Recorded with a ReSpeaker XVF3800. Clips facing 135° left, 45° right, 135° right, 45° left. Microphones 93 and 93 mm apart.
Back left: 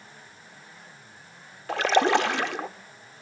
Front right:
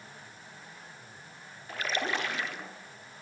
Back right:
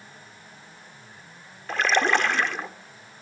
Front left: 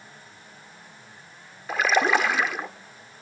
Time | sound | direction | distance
1.7 | a splash | 130° left | 1.0 m